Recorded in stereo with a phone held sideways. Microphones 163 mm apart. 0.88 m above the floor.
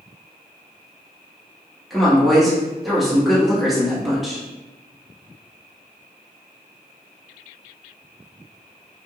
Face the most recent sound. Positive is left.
turn(degrees=0)  # may be behind; listen again after turning